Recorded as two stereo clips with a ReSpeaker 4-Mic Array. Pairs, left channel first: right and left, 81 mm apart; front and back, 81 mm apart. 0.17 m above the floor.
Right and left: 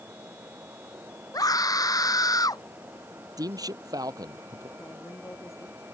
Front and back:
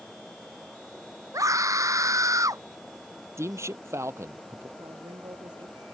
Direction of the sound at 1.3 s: 130° right.